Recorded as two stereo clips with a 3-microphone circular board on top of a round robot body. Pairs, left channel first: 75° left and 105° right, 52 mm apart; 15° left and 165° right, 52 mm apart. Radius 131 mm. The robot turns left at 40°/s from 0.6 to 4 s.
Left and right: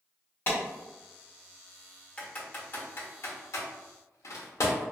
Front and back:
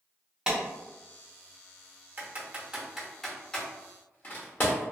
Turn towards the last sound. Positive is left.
turn(degrees=70)